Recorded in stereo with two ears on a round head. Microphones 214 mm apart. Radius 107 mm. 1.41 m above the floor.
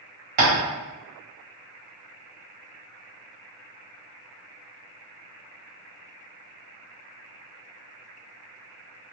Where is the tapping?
35° right (ahead or behind), 0.9 m.